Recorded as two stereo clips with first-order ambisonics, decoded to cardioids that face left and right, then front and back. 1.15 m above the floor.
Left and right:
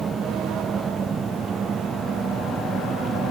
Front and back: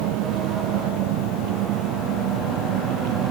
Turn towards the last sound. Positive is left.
turn(degrees=-160)